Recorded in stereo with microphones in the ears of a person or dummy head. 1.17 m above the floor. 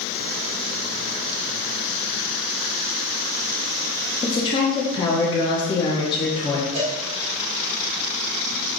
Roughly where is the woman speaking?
Left.